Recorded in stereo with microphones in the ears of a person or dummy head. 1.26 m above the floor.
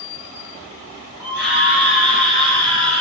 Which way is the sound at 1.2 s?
5° right (ahead or behind).